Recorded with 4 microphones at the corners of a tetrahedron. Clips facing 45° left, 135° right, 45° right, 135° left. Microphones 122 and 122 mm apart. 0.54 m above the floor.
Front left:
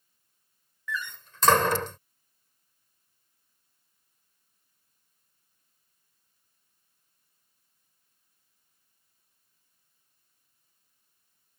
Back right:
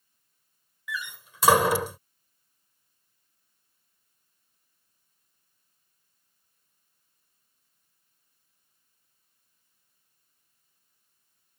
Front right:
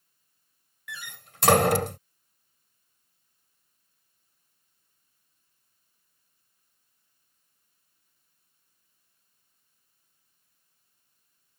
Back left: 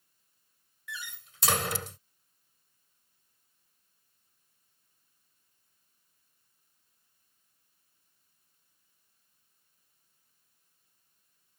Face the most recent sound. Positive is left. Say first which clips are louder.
# front left 1 dB, front right 1 dB
turn(degrees=-55)